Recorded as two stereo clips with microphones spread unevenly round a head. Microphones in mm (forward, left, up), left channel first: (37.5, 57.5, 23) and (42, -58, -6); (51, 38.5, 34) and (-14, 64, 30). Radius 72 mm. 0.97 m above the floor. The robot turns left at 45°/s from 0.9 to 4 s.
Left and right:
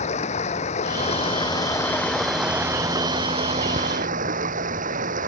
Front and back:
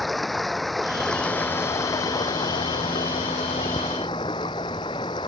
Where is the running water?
65° left; by 5.3 s 75° right.